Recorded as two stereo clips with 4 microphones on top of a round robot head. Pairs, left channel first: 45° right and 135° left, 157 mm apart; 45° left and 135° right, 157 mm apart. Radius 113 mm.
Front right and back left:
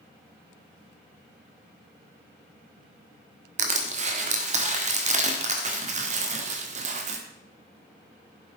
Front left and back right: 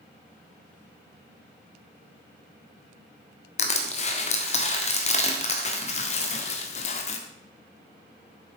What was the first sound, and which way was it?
Crushing, 90° left.